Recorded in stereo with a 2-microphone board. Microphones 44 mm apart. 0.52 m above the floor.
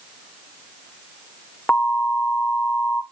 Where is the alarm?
30° left (ahead or behind), 1.0 m.